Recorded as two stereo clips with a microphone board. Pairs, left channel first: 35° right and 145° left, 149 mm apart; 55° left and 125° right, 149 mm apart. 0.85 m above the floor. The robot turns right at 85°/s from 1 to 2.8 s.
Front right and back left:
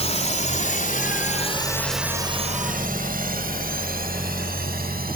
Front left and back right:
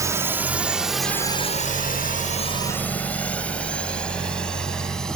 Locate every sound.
0.0 s a drone: 60° right; by 5.2 s 140° left